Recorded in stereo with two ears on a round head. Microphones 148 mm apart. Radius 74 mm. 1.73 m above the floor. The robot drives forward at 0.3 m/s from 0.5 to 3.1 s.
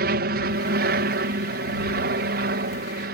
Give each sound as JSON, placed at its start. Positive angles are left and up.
{"t": 0.0, "sound": "an aircraft", "side_deg": -60}